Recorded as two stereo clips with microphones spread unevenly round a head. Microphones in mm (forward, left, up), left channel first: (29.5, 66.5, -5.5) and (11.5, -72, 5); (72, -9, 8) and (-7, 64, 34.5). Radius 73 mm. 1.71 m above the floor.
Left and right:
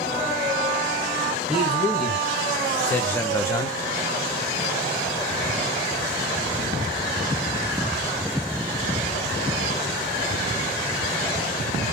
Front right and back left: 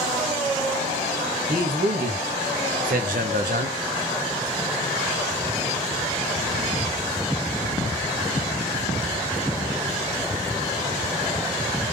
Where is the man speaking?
175° left, 2.5 m; by 3.8 s 150° left, 1.3 m.